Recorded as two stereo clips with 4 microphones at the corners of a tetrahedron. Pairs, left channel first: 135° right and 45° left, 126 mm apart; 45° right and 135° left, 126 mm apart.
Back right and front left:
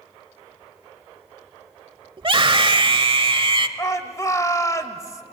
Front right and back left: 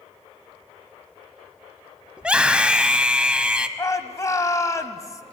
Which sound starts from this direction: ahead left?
A scream, at 2.2 s.